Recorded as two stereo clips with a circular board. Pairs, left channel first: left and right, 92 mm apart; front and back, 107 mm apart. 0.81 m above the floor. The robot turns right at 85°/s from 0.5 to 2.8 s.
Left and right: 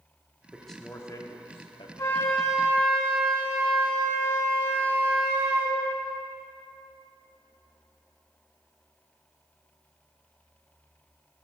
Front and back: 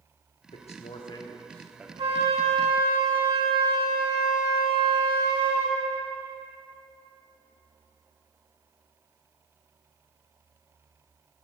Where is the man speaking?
10° right, 1.4 m; by 1.9 s 105° left, 1.4 m.